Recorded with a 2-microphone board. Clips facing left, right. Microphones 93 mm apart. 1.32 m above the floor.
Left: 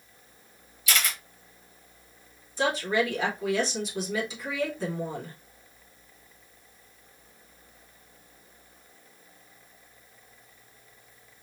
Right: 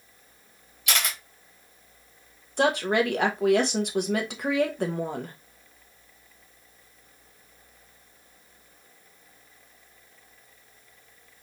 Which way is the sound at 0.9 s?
65° right (ahead or behind).